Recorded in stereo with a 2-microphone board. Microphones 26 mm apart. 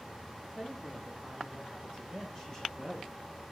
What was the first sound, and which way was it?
A woman speaking, 15° left (ahead or behind).